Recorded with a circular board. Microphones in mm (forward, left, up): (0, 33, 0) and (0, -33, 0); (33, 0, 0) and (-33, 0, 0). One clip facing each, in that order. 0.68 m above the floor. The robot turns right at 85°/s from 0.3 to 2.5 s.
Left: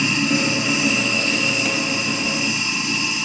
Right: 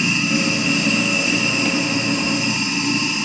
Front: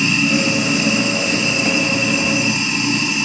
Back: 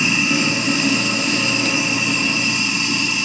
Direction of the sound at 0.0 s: 115° left.